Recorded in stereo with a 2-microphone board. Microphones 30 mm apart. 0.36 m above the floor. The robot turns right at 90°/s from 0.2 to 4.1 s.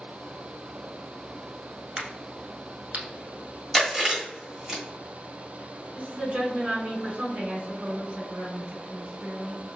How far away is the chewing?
About 1.3 m.